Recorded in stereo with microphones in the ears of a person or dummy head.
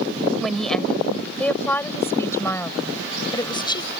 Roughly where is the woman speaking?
Centre.